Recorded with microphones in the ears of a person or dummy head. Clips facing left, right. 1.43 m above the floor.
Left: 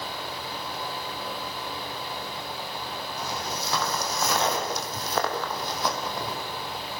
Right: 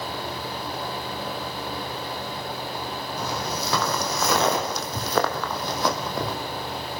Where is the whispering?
I don't hear whispering.